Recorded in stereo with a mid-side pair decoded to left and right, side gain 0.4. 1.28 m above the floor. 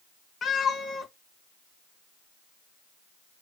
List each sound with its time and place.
0.4 s a cat meowing: 50° left, 4 m